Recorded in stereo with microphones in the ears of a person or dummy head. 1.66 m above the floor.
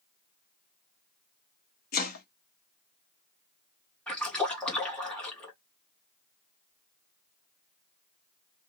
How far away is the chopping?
About 0.9 m.